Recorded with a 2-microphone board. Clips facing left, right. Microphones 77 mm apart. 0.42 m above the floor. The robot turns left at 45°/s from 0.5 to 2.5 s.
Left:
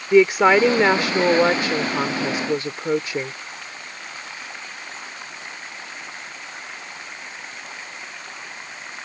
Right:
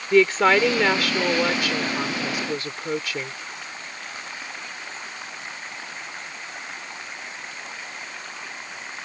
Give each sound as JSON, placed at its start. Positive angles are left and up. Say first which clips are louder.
{"t": 0.1, "sound": "a woman speaking", "louder": "left 3 dB", "azimuth_deg": 150}